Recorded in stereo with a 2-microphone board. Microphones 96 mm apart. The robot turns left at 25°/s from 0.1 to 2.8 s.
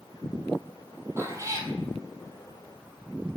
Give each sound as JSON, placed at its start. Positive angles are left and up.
{"t": 1.2, "sound": "a cat meowing", "side_deg": -25, "distance_m": 0.6}